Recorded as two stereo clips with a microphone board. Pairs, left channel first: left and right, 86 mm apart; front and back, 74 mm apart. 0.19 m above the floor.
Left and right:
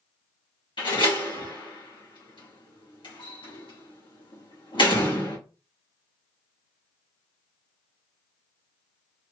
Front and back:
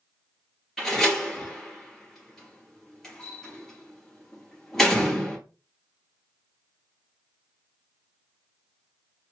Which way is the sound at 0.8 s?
85° left.